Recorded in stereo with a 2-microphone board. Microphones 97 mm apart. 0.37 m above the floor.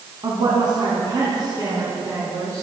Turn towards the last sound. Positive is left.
turn(degrees=-35)  # may be behind; listen again after turning